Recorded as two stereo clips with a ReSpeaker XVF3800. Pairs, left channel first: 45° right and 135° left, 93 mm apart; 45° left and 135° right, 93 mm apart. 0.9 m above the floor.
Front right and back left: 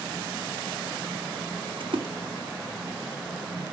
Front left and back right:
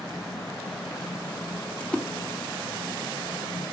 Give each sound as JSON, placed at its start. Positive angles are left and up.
{"t": 1.8, "sound": "a splash", "azimuth_deg": 120, "distance_m": 2.0}